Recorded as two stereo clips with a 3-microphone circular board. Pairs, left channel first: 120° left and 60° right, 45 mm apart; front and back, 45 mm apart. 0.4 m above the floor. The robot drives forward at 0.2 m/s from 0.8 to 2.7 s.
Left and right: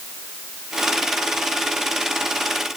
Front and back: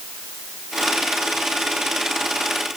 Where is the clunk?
I don't hear a clunk.